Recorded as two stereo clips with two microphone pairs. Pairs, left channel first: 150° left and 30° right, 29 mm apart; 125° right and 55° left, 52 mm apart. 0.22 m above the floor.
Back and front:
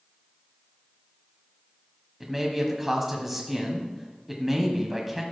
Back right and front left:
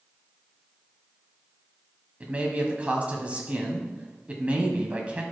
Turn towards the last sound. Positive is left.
turn(degrees=40)